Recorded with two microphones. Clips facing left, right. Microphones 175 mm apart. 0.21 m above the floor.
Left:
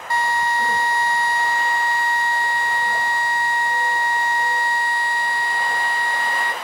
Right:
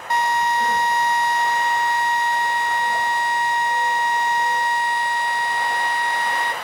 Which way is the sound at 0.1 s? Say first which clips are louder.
Right 2 dB; 20° right (ahead or behind).